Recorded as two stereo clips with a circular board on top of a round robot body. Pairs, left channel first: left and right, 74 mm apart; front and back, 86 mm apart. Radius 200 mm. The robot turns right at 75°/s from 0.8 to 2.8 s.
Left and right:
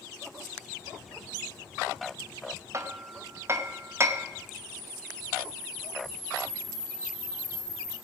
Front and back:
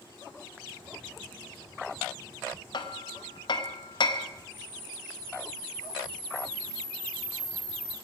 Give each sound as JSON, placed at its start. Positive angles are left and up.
{"t": 2.7, "sound": "hammering", "azimuth_deg": -40, "distance_m": 1.0}
{"t": 4.5, "sound": "a camera shutter", "azimuth_deg": -155, "distance_m": 5.5}